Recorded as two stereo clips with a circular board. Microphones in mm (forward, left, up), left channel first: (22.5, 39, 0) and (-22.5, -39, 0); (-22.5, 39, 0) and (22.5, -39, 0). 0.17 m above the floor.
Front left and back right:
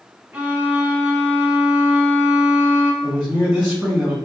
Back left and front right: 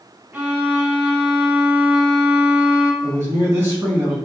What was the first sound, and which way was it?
A violin, 85° right.